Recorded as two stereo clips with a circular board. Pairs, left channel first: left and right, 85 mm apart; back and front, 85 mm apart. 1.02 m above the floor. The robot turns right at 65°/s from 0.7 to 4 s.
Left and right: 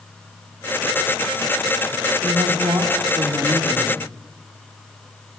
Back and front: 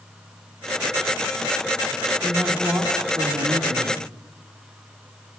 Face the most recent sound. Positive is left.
turn(degrees=20)